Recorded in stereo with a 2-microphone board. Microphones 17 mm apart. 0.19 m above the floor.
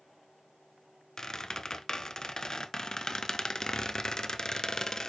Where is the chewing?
I don't hear chewing.